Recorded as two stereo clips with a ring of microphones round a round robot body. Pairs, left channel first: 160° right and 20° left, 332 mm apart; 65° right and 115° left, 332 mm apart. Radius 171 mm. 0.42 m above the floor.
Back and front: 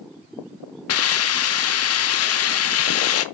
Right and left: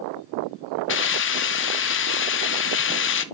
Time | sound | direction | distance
0.9 | a hiss | 115° right | 0.6 m